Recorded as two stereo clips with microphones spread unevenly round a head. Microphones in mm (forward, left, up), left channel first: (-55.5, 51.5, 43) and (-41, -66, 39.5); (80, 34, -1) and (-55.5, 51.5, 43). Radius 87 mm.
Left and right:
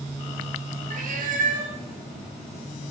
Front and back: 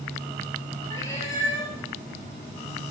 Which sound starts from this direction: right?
A cat meowing, at 0.9 s.